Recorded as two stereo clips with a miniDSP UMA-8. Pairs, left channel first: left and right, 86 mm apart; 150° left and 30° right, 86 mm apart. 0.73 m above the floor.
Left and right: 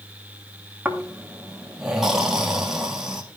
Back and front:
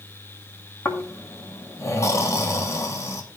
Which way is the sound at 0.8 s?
175° right.